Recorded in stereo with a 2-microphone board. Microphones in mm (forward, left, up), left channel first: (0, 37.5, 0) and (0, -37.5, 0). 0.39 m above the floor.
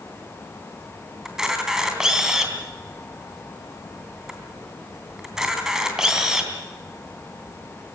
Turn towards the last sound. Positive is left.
turn(degrees=-10)  # may be behind; listen again after turning